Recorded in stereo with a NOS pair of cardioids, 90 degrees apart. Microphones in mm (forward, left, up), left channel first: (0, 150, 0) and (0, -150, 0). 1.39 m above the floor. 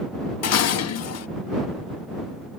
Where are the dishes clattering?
60° left.